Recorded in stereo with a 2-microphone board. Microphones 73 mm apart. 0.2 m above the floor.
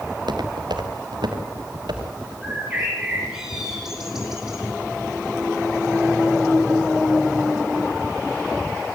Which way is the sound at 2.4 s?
5° right (ahead or behind).